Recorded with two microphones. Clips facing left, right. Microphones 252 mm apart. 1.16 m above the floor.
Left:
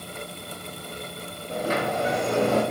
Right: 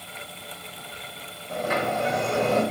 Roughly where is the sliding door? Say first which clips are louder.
Left 1 dB; left.